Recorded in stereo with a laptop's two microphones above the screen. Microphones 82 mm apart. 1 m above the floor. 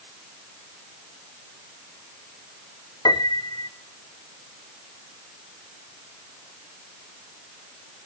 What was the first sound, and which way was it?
A piano, 60° left (ahead or behind).